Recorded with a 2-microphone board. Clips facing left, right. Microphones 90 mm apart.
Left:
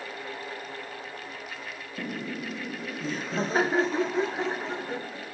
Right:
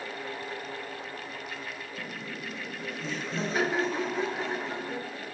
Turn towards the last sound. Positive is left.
turn(degrees=25)  # may be behind; listen again after turning